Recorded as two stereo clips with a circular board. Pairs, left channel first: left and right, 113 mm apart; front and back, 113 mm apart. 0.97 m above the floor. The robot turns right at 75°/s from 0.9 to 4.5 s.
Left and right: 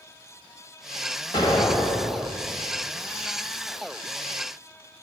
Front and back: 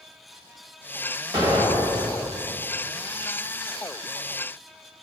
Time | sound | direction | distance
1.3 | an explosion | 135° left | 2 m